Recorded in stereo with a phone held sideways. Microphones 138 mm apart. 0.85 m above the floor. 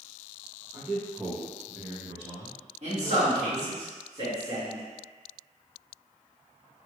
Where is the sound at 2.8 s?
60° right (ahead or behind), 1.5 m.